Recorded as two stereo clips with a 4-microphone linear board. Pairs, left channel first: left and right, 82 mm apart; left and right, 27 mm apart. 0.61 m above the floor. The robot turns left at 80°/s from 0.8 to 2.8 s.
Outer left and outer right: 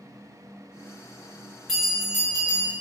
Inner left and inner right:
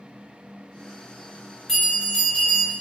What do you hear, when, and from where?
1.7 s a bell: 5° right, 1.7 m; by 2.7 s 85° right, 1.7 m